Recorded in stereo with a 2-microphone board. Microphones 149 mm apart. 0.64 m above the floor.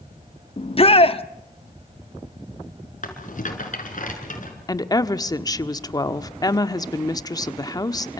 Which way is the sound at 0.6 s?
40° left (ahead or behind).